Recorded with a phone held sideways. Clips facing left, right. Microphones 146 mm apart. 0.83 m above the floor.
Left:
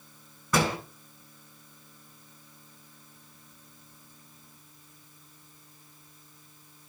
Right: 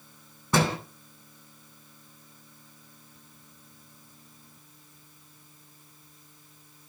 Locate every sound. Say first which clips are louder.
0.5 s a door slam: right 1 dB; 25° right (ahead or behind), 7 m